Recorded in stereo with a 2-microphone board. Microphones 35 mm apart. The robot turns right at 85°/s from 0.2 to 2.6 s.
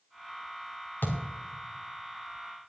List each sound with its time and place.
1.0 s a thud: 70° left (ahead or behind), 3 m; by 1.2 s 90° left, 3 m